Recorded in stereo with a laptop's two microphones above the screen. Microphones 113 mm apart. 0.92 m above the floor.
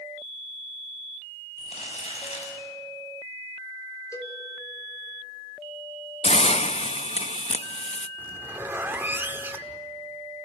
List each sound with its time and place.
1.6 s crumpling: 75° left (ahead or behind), 6.5 m
4.1 s a cowbell: 30° left (ahead or behind), 3 m
6.2 s a hiss: 75° left (ahead or behind), 0.6 m
8.2 s a zipper: 20° right (ahead or behind), 0.9 m